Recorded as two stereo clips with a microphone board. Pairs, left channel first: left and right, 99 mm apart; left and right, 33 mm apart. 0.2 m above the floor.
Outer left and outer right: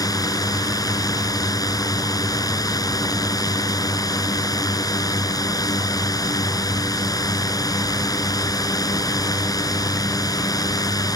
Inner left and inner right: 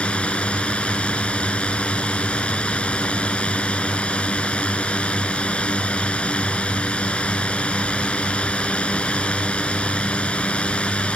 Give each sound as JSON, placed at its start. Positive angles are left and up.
{"t": 0.0, "sound": "a drone", "side_deg": 40}